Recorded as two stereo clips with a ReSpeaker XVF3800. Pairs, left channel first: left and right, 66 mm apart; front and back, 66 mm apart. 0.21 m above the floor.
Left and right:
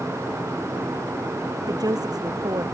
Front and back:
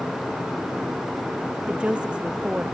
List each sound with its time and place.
1.7 s a woman speaking: 105° right